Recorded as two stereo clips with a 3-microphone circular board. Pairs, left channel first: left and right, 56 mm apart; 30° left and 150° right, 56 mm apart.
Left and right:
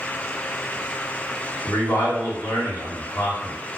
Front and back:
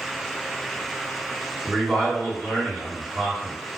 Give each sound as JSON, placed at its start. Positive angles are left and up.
{"t": 1.6, "sound": "a man speaking", "azimuth_deg": 105, "distance_m": 1.2}